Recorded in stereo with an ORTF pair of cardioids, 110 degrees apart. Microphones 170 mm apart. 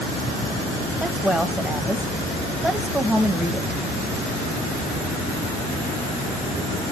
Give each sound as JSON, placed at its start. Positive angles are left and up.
{"t": 1.0, "sound": "a woman speaking", "azimuth_deg": -5, "distance_m": 0.9}